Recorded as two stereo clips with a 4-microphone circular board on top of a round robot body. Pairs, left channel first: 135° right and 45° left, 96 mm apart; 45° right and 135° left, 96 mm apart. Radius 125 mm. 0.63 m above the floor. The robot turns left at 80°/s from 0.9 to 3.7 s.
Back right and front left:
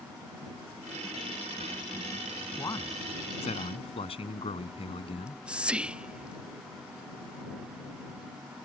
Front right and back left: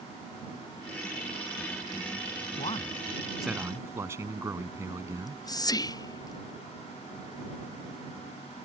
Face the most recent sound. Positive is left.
turn(degrees=-30)